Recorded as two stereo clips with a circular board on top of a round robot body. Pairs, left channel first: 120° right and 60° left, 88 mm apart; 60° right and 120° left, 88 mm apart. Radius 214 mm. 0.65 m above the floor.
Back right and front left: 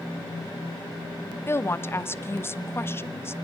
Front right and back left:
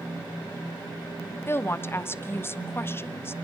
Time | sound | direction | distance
1.5 | a woman speaking | 90° right | 1.3 m